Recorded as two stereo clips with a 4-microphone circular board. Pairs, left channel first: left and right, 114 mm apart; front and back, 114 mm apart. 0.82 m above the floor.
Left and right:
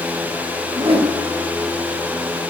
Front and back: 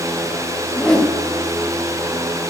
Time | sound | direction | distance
0.7 | a whoosh | 85° right | 1.1 m